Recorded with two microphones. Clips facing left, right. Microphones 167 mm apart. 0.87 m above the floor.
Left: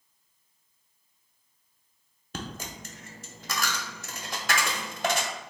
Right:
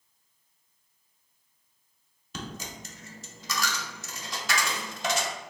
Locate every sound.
2.3 s a dropped coin: 55° left (ahead or behind), 0.6 m